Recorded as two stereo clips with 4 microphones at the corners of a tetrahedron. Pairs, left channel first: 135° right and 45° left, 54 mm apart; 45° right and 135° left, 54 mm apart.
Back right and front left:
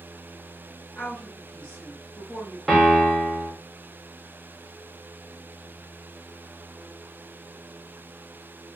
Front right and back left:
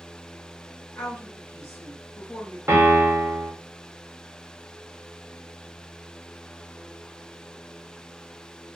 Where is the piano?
135° left, 1.0 m.